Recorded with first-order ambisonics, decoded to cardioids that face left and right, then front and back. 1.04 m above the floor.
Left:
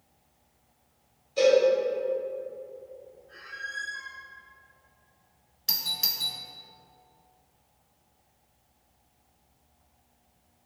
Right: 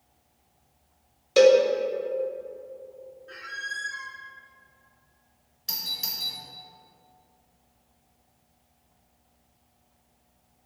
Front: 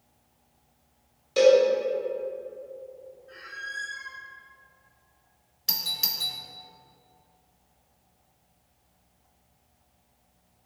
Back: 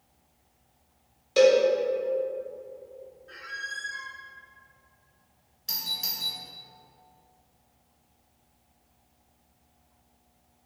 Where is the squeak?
110° right, 0.9 m.